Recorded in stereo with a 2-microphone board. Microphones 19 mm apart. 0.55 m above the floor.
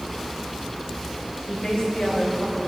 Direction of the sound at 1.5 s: 65° left (ahead or behind).